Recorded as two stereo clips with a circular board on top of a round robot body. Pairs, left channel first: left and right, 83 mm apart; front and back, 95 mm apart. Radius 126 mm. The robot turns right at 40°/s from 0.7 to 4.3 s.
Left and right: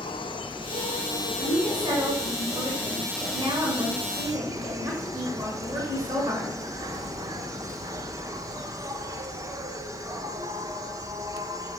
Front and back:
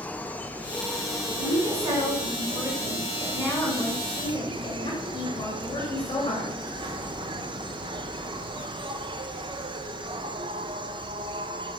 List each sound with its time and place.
0.0 s an insect: 75° left, 1.0 m; by 11.8 s 140° right, 1.0 m
1.4 s a woman speaking: 165° right, 7 m; by 6.6 s 45° right, 7 m